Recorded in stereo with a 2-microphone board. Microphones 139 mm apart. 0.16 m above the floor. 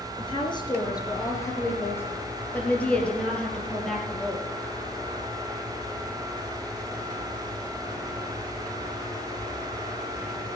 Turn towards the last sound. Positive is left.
turn(degrees=0)  # may be behind; listen again after turning